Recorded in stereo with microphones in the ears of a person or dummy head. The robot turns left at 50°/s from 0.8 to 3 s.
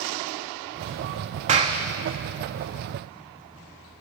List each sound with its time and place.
1.5 s a clap: 35° right (ahead or behind), 1.3 m; by 1.8 s 20° right (ahead or behind), 1.3 m